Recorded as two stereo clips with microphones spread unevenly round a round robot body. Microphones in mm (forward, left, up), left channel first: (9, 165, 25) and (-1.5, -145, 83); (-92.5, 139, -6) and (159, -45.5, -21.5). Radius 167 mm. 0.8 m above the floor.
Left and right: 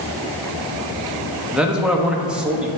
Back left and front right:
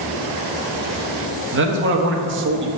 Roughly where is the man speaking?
Ahead.